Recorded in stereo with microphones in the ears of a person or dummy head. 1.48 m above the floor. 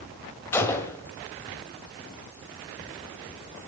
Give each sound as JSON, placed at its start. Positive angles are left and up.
{"t": 0.5, "sound": "a gunshot", "side_deg": 15, "distance_m": 1.9}